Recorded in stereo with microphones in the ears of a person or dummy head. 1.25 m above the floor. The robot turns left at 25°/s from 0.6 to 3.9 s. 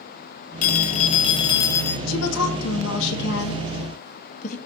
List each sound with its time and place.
0.6 s a phone ringing: 50° left, 0.7 m; by 2.0 s 15° left, 0.7 m
2.1 s a woman speaking: 85° left, 1.7 m; by 4.6 s 45° left (ahead or behind), 1.7 m